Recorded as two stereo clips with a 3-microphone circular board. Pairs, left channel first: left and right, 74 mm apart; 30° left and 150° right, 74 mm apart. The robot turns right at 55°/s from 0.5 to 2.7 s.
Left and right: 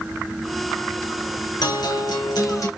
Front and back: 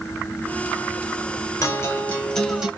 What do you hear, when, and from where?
1.6 s a guitar: 75° left, 0.9 m; by 2.7 s 130° left, 0.9 m